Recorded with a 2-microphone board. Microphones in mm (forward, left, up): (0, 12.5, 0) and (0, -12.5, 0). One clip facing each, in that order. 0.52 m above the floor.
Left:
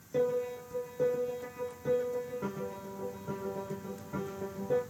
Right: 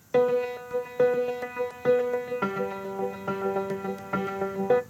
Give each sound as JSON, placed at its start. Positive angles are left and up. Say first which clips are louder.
{"t": 0.1, "sound": "a piano", "louder": "right 8 dB", "side_deg": -85, "distance_m": 0.5}